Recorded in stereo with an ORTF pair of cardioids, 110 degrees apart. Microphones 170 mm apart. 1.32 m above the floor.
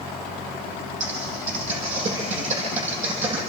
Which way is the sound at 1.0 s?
45° right.